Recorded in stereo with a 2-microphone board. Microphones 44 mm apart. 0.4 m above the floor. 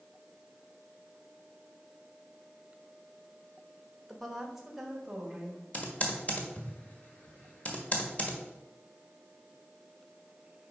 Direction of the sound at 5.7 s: 30° left (ahead or behind).